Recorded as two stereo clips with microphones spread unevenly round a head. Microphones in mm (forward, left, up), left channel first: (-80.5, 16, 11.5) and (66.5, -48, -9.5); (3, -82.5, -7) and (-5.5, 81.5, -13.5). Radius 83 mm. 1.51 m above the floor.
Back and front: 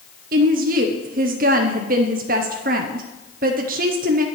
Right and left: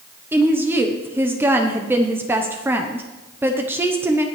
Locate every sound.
0.3 s a woman speaking: 15° left, 0.9 m